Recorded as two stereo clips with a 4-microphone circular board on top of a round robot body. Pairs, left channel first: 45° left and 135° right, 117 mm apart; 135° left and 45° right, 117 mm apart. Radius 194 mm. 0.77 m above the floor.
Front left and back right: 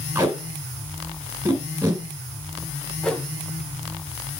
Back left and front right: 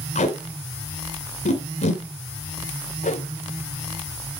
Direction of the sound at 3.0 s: 130° left.